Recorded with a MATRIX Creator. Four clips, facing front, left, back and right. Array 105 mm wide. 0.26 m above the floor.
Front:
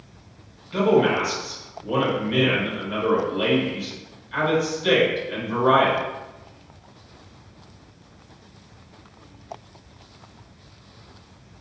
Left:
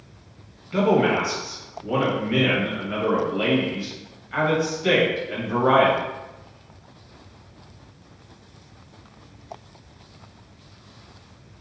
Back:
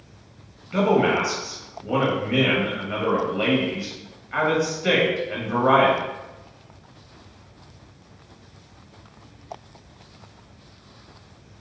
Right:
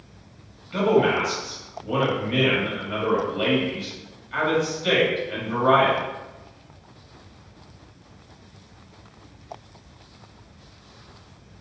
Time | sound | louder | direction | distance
0.7 | a man speaking | even, front 1 dB | 155° left | 1.1 m